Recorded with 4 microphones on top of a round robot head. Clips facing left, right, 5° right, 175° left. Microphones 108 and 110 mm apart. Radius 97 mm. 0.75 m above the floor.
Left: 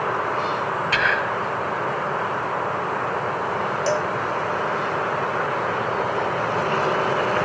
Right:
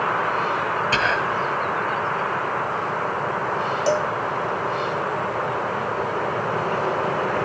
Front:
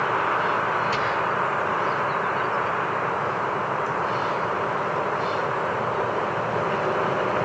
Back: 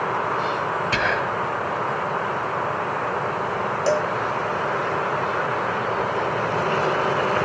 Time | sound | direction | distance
0.9 | whispering | 145° right | ?
3.9 | a cowbell | 165° right | ?